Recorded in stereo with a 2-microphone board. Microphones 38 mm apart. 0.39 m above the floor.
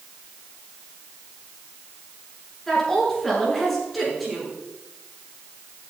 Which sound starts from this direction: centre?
A woman speaking, at 2.7 s.